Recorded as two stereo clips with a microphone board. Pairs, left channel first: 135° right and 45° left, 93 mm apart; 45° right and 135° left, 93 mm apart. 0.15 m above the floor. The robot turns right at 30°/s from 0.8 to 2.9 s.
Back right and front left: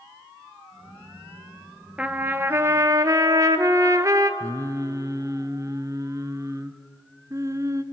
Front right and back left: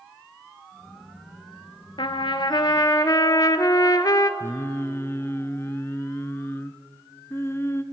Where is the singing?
10° left, 0.6 m.